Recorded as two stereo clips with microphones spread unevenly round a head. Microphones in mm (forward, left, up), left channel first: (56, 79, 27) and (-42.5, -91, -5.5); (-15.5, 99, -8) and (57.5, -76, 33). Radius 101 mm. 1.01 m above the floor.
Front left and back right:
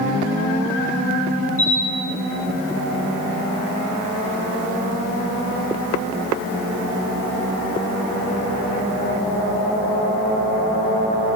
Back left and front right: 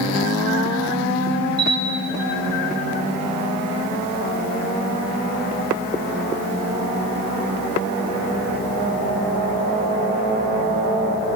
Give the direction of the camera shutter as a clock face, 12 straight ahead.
12 o'clock.